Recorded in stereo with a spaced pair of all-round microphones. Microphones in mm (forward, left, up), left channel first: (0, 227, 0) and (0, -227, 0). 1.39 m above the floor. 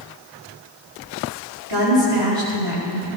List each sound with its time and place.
1.7 s a woman speaking: 70° right (ahead or behind), 4 m